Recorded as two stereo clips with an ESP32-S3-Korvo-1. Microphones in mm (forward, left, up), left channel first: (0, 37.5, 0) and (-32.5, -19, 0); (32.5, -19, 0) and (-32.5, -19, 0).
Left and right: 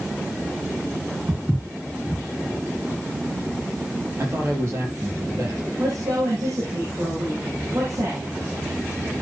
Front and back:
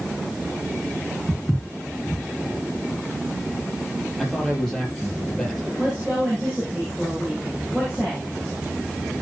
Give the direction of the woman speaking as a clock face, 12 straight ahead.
3 o'clock.